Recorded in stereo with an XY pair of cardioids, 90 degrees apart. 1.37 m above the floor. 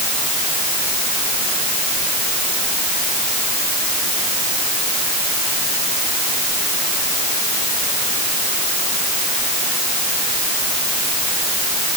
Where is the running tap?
No running tap in this recording.